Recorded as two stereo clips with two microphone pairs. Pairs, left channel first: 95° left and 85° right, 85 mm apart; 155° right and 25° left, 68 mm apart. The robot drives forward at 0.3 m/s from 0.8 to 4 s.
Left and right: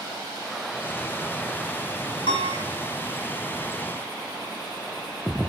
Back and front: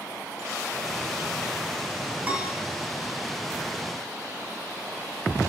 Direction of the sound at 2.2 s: 95° left.